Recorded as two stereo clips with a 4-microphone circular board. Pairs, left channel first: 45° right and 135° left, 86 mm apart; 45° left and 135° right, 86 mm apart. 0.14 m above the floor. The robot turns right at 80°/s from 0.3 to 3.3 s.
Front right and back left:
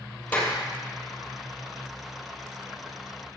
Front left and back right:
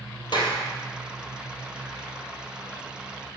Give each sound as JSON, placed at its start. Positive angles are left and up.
{"t": 0.3, "sound": "a clap", "azimuth_deg": 25, "distance_m": 2.5}